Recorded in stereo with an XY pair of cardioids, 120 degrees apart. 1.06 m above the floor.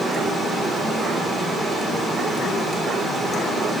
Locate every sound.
0.0 s running water: 20° right, 3.5 m